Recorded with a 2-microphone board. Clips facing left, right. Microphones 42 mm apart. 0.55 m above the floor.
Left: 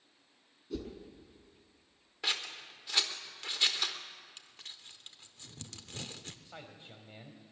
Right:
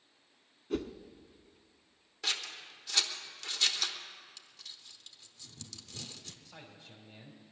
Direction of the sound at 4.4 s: 40° left (ahead or behind).